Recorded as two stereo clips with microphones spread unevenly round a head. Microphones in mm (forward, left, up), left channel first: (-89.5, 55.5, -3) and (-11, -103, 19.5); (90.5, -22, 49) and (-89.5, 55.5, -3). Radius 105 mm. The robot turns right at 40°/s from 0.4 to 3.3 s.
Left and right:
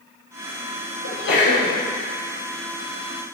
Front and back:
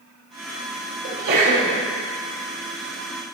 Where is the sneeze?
115° left, 4.5 m; by 1.8 s 140° left, 4.5 m.